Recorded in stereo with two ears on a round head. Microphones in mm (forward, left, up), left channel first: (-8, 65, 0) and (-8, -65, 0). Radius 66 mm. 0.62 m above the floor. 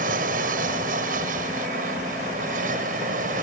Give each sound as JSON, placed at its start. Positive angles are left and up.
{"t": 0.0, "sound": "an aircraft", "side_deg": -60}